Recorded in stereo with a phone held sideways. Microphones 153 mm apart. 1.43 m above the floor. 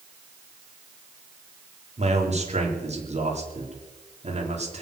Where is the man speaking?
45° right (ahead or behind), 3.5 m.